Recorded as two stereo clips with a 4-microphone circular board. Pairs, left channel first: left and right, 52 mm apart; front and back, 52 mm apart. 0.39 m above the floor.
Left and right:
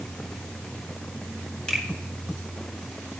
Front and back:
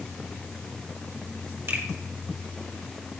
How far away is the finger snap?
About 2.5 m.